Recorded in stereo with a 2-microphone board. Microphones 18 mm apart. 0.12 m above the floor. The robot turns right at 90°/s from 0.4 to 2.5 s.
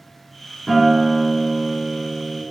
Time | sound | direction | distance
0.7 | a guitar | 10° right (ahead or behind) | 1.0 m